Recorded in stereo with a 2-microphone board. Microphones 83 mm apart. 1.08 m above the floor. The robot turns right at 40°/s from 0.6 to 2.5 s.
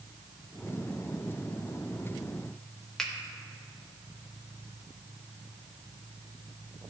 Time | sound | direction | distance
3.0 | a finger snap | 5° left (ahead or behind) | 1.0 m